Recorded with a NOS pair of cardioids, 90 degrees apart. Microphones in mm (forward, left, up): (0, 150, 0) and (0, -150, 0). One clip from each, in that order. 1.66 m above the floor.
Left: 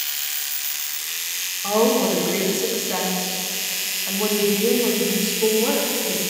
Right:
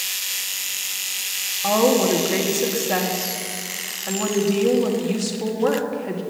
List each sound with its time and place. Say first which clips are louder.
1.6 s a woman speaking: right 1 dB; 40° right, 2.5 m